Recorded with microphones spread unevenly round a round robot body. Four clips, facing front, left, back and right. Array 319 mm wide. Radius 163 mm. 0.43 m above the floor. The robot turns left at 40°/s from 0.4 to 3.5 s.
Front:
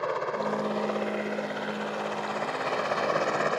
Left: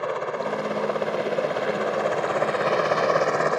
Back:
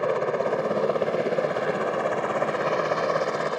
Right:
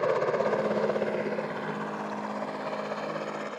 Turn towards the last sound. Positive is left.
turn(degrees=85)